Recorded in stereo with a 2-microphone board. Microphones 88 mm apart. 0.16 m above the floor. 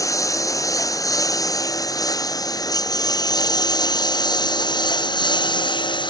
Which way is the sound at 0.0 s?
40° left (ahead or behind).